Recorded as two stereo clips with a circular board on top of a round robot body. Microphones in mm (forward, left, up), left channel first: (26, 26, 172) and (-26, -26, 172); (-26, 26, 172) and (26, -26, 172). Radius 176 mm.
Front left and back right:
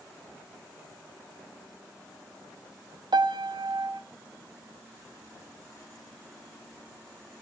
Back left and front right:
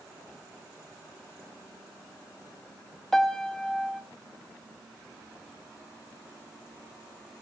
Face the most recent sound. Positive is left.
turn(degrees=-140)